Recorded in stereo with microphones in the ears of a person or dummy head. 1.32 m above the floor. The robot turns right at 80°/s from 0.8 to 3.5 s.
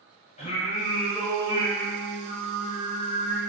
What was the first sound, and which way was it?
Singing, 145° left.